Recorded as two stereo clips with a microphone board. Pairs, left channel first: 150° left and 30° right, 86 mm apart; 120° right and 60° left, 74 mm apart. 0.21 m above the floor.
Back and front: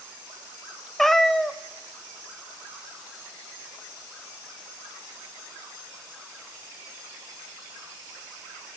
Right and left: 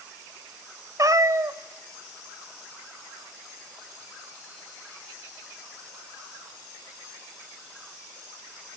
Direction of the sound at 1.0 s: 65° left.